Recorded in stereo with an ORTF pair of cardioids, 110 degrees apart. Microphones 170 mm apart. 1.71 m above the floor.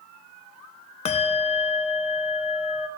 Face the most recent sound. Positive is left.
turn(degrees=40)